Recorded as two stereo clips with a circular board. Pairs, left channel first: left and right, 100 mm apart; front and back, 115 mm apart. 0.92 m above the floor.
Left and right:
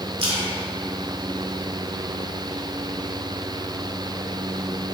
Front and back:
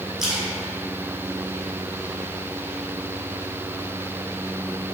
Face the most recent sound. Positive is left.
turn(degrees=-95)